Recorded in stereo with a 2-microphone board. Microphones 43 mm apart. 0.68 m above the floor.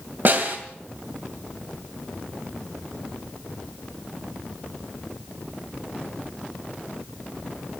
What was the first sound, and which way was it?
A snare drum, 55° right (ahead or behind).